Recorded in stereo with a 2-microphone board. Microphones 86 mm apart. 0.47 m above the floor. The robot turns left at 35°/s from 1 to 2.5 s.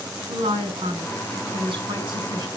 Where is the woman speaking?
75° right, 5 m; by 2.5 s 125° right, 5 m.